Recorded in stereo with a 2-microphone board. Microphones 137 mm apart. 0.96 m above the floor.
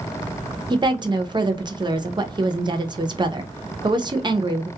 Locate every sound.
0.7 s a woman speaking: 35° right (ahead or behind), 0.5 m